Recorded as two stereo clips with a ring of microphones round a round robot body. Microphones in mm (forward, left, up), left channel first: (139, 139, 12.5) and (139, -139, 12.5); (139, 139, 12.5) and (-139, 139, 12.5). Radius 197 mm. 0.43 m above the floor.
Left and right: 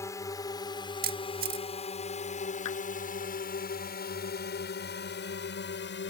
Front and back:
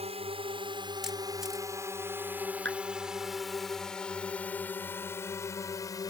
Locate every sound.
0.0 s a drone: 155° left; by 6.1 s 70° left
1.0 s a camera shutter: 95° right
2.6 s a clap: 130° left